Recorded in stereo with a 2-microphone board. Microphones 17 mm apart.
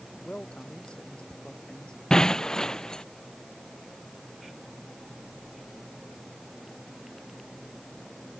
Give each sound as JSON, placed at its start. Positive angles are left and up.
{"t": 0.2, "sound": "a man speaking", "side_deg": 85}
{"t": 2.1, "sound": "breaking glass", "side_deg": 45}